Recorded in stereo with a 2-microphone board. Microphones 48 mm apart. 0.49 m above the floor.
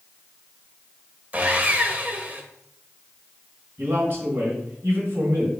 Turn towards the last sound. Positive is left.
turn(degrees=-50)  # may be behind; listen again after turning